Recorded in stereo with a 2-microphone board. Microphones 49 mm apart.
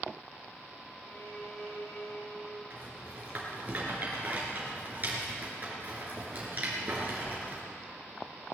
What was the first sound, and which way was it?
A violin, 75° left (ahead or behind).